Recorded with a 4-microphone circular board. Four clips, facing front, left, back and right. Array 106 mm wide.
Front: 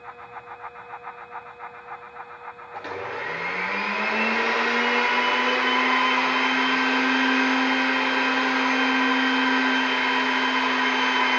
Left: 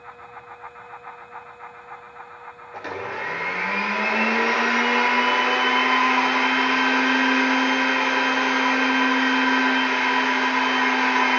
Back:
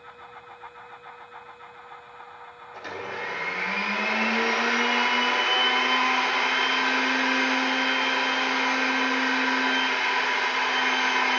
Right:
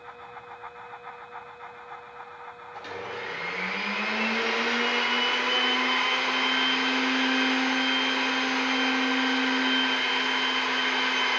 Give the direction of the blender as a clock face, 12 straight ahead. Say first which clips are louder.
Left 6 dB, front 3 dB; 10 o'clock.